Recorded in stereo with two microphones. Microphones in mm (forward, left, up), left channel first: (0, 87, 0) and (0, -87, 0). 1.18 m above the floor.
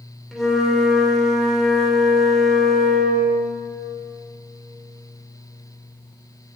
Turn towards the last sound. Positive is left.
turn(degrees=0)  # may be behind; listen again after turning